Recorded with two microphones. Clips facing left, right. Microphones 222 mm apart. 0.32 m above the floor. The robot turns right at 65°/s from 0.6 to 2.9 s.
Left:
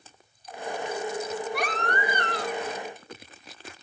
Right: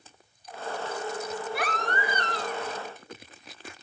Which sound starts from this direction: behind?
A baby crying, at 1.5 s.